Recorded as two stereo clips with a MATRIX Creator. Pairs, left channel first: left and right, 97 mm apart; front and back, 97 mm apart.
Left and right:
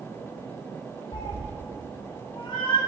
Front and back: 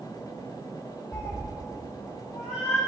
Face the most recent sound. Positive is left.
turn(degrees=60)